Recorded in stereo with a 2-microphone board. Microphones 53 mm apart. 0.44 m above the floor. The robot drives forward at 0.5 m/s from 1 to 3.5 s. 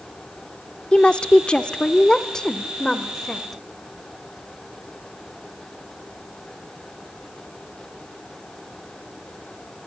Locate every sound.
0.9 s a woman speaking: 20° left (ahead or behind), 0.7 m; by 3.6 s 10° left (ahead or behind), 1.4 m